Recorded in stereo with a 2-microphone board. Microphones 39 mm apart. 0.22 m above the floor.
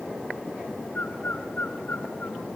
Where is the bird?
50° left (ahead or behind), 2 m.